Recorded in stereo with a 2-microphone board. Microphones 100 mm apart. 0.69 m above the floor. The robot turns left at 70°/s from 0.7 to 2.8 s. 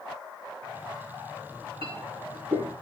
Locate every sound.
1.5 s a clink: 60° right (ahead or behind), 5.5 m; by 2.7 s 35° right (ahead or behind), 5.5 m